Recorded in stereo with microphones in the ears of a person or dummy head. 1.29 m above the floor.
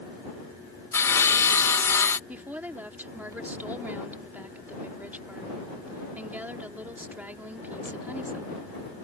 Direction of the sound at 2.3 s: 15° right (ahead or behind).